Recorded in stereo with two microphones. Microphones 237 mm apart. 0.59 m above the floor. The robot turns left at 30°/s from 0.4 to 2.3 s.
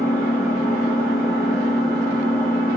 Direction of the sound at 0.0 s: 85° left.